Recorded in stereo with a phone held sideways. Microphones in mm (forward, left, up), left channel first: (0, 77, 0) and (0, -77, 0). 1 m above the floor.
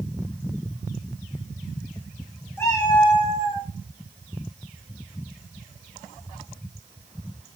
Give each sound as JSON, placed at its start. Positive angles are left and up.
{"t": 2.6, "sound": "a cat meowing", "side_deg": 15, "distance_m": 0.7}